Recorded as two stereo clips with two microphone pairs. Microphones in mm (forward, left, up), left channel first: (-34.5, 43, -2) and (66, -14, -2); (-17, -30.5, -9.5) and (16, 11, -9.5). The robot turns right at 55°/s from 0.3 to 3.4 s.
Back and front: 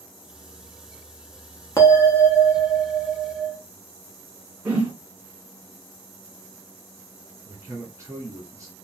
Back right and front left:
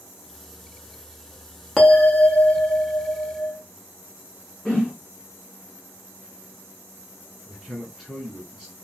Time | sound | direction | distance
1.8 | a bell | 155° left | 0.7 m
4.7 | a whoosh | 85° right | 1.3 m
7.5 | a man speaking | 30° right | 1.4 m